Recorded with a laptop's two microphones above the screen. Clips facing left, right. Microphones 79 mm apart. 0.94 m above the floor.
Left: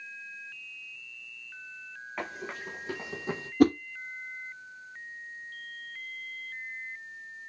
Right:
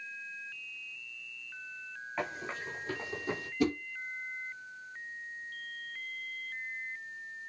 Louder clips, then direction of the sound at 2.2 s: Even; 5° left (ahead or behind).